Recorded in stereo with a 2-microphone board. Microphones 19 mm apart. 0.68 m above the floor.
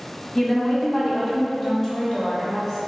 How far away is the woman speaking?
About 1.3 m.